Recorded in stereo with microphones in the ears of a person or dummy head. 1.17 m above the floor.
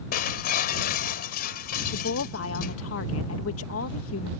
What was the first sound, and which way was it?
Breaking glass, 50° left (ahead or behind).